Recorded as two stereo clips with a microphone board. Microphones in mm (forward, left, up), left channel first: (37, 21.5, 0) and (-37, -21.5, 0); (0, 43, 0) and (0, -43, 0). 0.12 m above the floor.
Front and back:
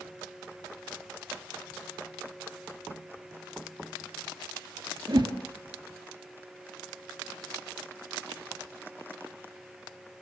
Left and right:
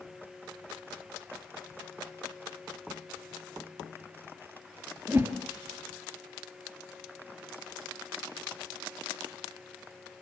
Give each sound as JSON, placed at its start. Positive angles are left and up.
{"t": 5.1, "sound": "a whoosh", "azimuth_deg": -145, "distance_m": 2.0}